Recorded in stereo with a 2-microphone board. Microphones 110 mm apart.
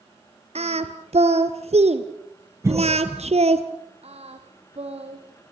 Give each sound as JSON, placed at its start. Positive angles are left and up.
{"t": 0.6, "sound": "singing", "side_deg": -65, "distance_m": 1.8}
{"t": 2.6, "sound": "a cough", "side_deg": -25, "distance_m": 10.0}
{"t": 4.0, "sound": "singing", "side_deg": -60, "distance_m": 4.0}